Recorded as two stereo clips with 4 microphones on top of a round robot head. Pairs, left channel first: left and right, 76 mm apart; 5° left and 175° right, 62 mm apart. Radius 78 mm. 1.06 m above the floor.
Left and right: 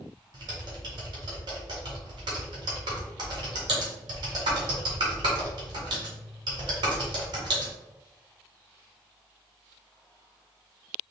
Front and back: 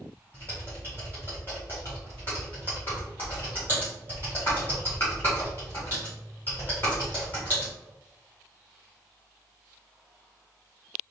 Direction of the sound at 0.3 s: 70° right.